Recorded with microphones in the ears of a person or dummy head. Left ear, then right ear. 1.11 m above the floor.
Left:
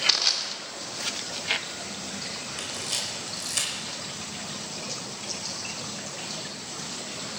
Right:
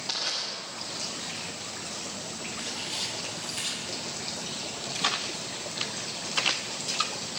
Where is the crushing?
40° left (ahead or behind), 2.5 m.